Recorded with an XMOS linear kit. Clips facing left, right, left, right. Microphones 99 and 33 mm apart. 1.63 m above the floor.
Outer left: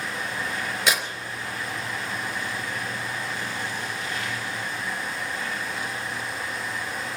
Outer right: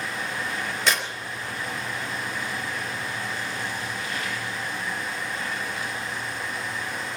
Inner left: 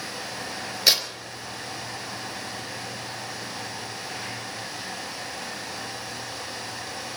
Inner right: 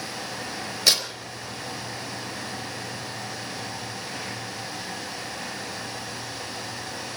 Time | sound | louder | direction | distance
0.9 | tearing paper | even, inner left 1 dB | 5° left (ahead or behind) | 4 m